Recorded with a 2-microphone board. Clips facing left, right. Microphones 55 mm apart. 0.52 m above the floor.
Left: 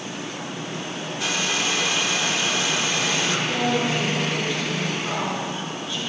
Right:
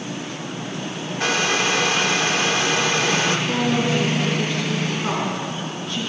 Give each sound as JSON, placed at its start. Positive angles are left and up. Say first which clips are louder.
{"t": 1.2, "sound": "a hair dryer", "louder": "right 5 dB", "side_deg": -50, "distance_m": 1.0}
{"t": 3.5, "sound": "a woman speaking", "louder": "right 2 dB", "side_deg": -65, "distance_m": 7.0}